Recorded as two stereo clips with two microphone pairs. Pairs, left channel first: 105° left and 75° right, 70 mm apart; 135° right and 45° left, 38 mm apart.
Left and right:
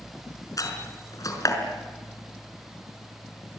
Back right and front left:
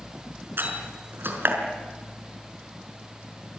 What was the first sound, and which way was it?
A door slam, 70° left.